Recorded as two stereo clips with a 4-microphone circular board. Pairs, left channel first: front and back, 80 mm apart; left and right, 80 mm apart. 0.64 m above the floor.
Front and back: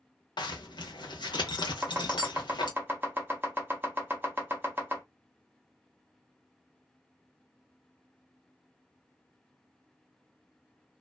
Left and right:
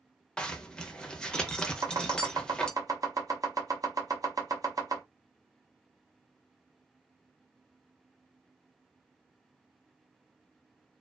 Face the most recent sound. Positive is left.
turn(degrees=-120)